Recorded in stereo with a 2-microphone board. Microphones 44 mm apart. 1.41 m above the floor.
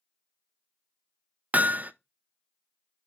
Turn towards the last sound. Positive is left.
turn(degrees=-40)  # may be behind; listen again after turning